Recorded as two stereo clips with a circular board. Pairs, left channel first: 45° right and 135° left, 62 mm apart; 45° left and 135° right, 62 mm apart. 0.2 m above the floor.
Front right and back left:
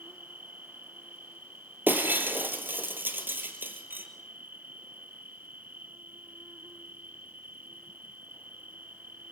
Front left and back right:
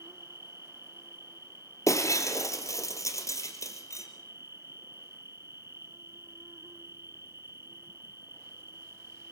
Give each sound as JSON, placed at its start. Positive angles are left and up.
{"t": 0.0, "sound": "an insect", "azimuth_deg": -170, "distance_m": 1.1}
{"t": 1.9, "sound": "breaking glass", "azimuth_deg": 80, "distance_m": 3.0}